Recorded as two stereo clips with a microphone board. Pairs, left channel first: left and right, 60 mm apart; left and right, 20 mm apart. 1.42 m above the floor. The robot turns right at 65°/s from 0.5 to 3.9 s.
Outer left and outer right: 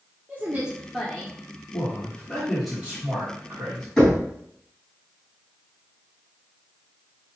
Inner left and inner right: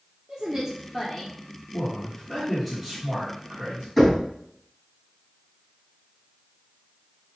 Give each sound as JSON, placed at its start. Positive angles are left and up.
{"t": 0.3, "sound": "a woman speaking", "azimuth_deg": -25, "distance_m": 0.8}
{"t": 1.7, "sound": "a man speaking", "azimuth_deg": 120, "distance_m": 1.6}
{"t": 4.0, "sound": "knocking", "side_deg": 5, "distance_m": 2.0}